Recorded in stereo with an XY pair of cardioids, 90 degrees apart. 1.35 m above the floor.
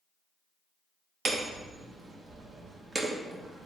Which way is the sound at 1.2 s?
45° right.